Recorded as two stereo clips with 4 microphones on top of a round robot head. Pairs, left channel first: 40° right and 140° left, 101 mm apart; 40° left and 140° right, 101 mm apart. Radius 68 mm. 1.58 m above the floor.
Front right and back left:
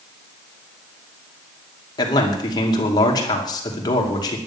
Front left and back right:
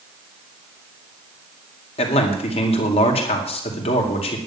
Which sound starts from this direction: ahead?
A man speaking, at 2.0 s.